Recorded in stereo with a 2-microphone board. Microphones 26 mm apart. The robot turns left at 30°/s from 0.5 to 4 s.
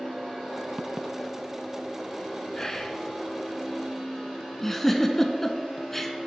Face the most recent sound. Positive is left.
turn(degrees=15)  # may be behind; listen again after turning